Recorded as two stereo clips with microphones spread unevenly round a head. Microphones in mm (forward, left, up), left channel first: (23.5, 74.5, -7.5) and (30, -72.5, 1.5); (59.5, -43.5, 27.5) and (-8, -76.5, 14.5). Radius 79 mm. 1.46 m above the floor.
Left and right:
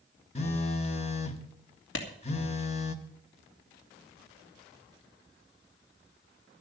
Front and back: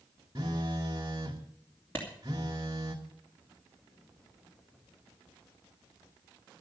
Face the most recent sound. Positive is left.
turn(degrees=105)